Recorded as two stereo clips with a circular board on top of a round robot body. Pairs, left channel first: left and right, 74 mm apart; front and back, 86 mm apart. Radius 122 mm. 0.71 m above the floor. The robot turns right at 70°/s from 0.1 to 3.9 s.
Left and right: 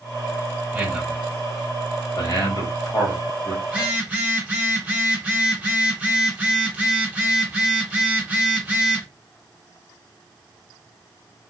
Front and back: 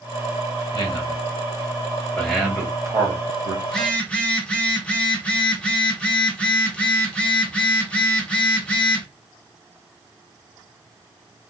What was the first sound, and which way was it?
A man speaking, 20° right.